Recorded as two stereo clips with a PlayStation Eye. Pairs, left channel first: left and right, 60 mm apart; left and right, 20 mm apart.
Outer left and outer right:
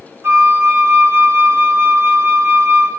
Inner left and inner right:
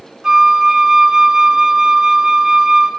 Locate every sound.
0.2 s a flute: 45° right (ahead or behind), 0.8 m